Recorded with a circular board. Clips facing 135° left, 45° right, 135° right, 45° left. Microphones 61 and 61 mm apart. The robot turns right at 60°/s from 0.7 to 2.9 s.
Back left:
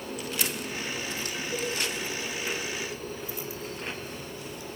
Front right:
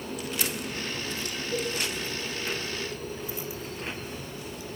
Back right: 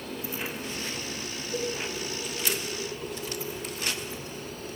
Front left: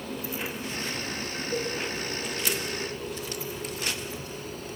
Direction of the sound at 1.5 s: 30° left.